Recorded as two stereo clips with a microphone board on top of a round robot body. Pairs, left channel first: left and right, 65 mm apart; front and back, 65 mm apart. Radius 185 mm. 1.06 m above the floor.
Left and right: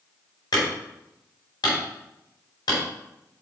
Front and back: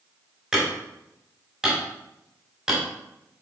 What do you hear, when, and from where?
0.5 s hammering: 100° left, 4.5 m